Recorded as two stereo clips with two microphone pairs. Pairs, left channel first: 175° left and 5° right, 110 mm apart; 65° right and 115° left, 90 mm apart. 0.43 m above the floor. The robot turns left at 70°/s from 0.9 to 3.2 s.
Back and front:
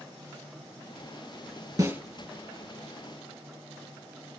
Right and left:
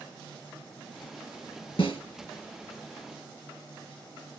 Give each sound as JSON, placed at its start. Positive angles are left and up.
{"t": 1.8, "sound": "a snare drum", "azimuth_deg": -55, "distance_m": 2.5}